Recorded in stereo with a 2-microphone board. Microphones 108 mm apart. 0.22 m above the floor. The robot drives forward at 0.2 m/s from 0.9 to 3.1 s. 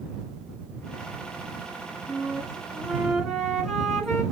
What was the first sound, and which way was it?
A flute, 5° right (ahead or behind).